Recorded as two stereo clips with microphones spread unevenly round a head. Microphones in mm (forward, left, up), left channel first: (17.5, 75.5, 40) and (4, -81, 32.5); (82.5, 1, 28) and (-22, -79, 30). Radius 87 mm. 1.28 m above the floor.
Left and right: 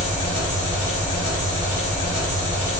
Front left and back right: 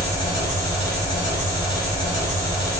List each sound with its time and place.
0.0 s an engine running: 40° left, 1.4 m